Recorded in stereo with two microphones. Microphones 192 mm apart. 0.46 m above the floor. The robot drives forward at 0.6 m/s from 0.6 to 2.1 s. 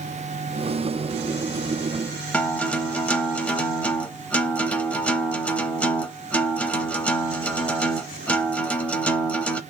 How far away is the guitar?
About 0.5 m.